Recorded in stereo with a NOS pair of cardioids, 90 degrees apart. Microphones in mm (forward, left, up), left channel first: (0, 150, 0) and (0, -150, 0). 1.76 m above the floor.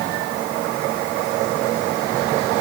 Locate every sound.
Only background noise.